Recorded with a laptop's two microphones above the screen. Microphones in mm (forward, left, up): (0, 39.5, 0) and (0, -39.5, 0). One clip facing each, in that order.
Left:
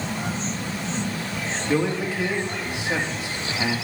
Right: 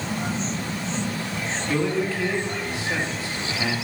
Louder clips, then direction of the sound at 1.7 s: Even; 20° left (ahead or behind).